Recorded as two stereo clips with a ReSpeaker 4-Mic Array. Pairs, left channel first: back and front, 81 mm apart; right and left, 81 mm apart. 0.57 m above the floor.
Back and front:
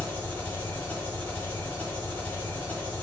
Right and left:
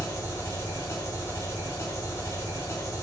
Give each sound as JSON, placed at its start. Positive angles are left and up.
{"t": 0.0, "sound": "an engine running", "azimuth_deg": -120, "distance_m": 1.3}